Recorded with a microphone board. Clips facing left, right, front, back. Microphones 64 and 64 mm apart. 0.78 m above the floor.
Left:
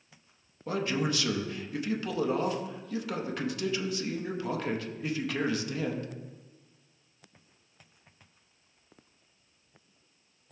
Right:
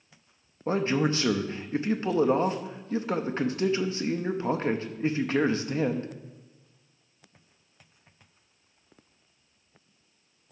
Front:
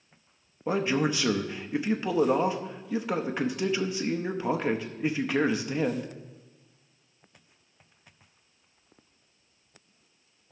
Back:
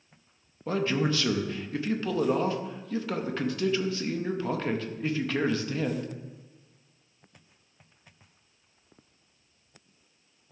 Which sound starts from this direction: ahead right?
A man speaking, at 0.7 s.